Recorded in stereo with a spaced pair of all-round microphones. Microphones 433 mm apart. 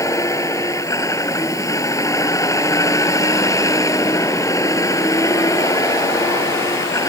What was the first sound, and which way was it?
A vehicle, 5° left (ahead or behind).